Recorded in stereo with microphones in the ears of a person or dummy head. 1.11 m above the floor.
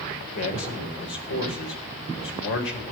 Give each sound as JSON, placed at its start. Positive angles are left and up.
{"t": 0.3, "sound": "a man speaking", "side_deg": 70, "distance_m": 4.5}